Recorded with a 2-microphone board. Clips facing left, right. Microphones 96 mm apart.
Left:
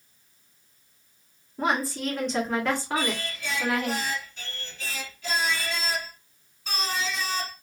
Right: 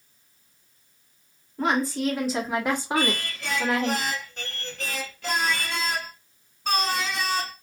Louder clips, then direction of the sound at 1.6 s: Right 2 dB; 5° left (ahead or behind).